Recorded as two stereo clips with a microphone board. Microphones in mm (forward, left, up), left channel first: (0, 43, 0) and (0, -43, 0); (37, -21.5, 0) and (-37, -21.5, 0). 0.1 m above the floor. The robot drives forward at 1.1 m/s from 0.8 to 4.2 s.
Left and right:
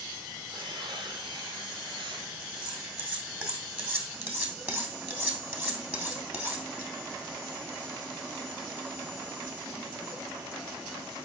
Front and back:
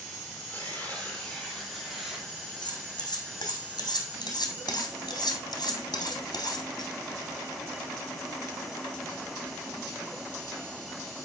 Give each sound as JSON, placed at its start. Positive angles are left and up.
{"t": 0.5, "sound": "tearing paper", "azimuth_deg": -70, "distance_m": 3.5}
{"t": 2.6, "sound": "cutlery clinking", "azimuth_deg": -15, "distance_m": 4.5}